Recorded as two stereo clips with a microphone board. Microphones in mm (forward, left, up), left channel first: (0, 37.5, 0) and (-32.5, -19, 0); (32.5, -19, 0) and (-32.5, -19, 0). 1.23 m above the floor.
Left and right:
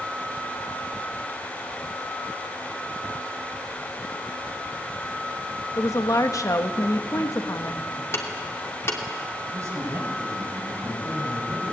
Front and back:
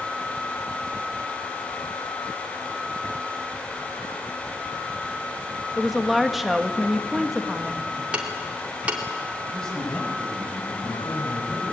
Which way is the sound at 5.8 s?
90° left.